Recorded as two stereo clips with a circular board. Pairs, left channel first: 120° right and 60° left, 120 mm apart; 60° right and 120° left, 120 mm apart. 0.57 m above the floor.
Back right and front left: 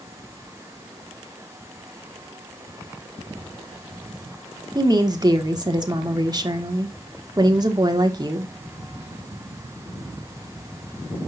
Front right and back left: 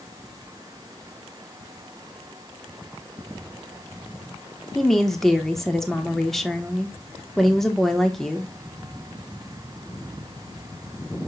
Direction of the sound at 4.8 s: 25° left.